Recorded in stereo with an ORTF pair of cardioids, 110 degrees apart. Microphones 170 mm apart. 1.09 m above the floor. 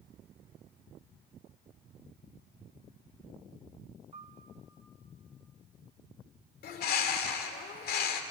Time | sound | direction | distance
4.1 | a piano | 35° right | 1.5 m
6.6 | a bird | 60° left | 2 m